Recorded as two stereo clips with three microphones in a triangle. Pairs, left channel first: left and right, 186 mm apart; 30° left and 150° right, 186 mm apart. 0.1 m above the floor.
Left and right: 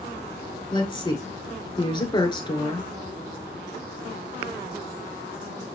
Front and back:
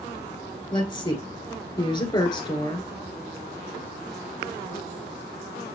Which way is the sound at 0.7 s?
60° left.